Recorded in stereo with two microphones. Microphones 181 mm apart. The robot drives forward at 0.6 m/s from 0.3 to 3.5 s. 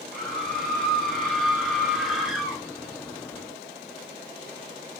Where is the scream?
Centre (ahead or behind), 2.5 m.